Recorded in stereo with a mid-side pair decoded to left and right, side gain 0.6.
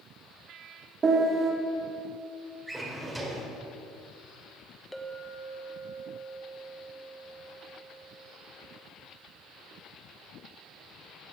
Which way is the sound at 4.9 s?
5° left.